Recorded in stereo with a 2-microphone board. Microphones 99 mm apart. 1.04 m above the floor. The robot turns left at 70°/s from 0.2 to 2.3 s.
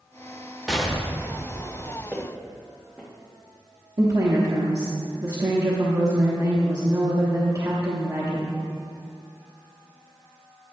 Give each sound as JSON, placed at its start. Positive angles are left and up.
{"t": 0.7, "sound": "an explosion", "azimuth_deg": 180, "distance_m": 0.9}
{"t": 2.1, "sound": "footsteps", "side_deg": -15, "distance_m": 2.5}
{"t": 4.0, "sound": "a woman speaking", "side_deg": -35, "distance_m": 1.1}